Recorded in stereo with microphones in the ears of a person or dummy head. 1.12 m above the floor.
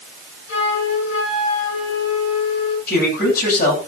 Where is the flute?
70° left (ahead or behind), 5 m.